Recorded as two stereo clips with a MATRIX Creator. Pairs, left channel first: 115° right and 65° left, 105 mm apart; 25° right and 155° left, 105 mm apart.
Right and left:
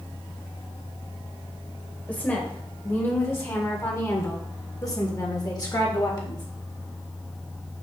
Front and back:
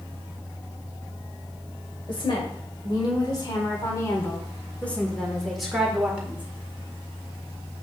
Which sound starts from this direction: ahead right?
A woman speaking, at 2.1 s.